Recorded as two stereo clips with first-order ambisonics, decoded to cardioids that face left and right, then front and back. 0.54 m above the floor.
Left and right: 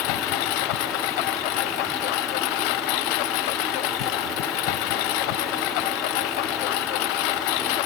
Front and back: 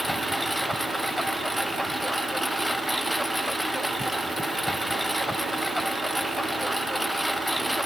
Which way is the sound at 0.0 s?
90° left.